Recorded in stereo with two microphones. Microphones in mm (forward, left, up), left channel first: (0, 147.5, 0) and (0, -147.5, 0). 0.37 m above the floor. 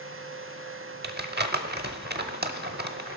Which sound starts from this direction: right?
Crumpling, at 1.0 s.